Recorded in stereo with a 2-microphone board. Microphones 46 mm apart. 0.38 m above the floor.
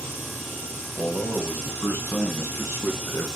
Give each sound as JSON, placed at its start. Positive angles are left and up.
{"t": 1.0, "sound": "a man speaking", "side_deg": 60, "distance_m": 2.0}